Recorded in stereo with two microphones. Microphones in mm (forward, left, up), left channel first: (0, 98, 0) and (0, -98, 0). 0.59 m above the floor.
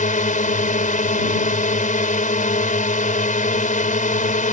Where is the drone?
40° left (ahead or behind).